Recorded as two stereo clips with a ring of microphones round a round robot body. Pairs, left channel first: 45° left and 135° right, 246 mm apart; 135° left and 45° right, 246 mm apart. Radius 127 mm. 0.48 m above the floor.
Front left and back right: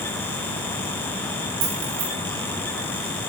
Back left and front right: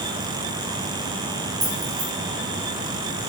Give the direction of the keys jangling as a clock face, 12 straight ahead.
4 o'clock.